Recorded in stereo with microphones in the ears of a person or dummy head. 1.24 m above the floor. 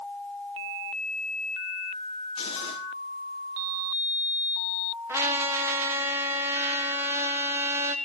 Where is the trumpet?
10° right (ahead or behind), 1.0 m.